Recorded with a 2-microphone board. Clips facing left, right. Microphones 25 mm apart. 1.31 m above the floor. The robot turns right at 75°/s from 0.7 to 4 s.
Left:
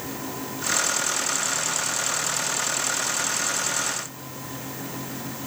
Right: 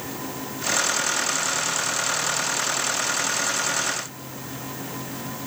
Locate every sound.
Only background noise.